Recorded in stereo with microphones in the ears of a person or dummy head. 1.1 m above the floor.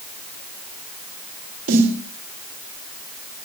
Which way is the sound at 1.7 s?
65° right (ahead or behind).